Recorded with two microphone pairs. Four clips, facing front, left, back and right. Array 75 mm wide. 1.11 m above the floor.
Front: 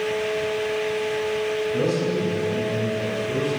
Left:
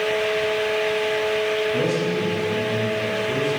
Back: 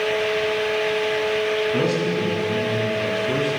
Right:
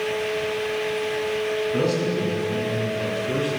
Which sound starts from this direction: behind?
A man speaking, at 1.7 s.